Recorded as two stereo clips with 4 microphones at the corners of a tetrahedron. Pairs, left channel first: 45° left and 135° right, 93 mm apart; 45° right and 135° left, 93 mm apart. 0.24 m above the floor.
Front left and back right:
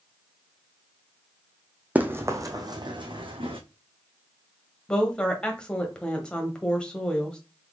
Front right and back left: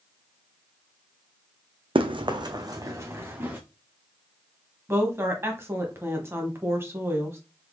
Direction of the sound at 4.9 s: 115° left.